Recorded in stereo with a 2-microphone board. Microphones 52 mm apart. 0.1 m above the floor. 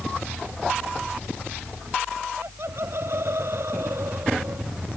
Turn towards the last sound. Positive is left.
turn(degrees=-60)  # may be behind; listen again after turning